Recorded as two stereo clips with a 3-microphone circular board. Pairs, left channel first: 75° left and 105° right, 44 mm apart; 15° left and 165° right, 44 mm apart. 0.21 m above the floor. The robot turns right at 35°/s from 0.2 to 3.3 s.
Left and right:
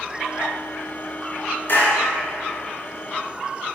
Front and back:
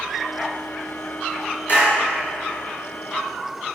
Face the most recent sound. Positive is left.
turn(degrees=100)